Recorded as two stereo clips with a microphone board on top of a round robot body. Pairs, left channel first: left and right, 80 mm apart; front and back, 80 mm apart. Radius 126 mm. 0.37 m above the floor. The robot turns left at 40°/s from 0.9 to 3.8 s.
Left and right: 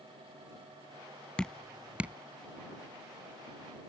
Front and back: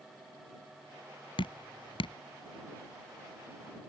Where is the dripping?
10° left; by 2.1 s 20° right.